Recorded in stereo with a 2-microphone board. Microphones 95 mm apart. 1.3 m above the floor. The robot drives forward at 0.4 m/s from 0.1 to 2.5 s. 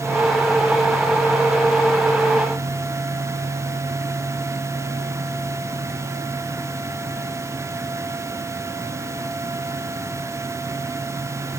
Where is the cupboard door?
No cupboard door in this recording.